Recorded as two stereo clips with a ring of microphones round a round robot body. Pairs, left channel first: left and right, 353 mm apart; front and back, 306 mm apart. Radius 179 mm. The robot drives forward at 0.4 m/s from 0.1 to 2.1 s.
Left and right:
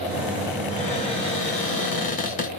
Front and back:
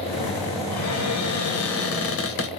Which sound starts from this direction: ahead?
A cupboard door, at 0.7 s.